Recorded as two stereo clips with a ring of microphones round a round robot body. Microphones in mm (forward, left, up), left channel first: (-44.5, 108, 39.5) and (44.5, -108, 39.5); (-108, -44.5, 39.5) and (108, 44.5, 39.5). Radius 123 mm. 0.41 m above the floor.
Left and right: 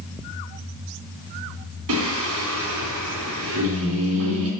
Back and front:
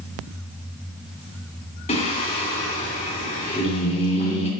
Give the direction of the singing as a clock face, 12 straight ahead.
3 o'clock.